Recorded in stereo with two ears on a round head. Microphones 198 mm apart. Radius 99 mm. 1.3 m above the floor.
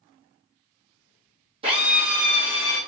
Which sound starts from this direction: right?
A drill, at 1.6 s.